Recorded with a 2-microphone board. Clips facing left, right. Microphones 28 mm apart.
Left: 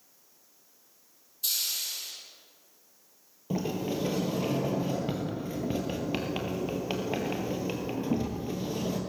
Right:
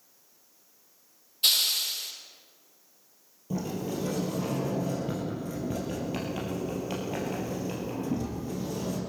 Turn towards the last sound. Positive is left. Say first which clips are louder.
# left 1 dB
turn(degrees=30)  # may be behind; listen again after turning